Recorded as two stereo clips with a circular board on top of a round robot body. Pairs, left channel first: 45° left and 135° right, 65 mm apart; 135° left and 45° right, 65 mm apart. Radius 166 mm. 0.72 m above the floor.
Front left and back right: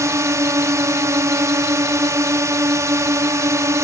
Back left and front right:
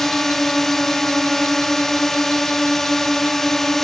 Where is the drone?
140° right.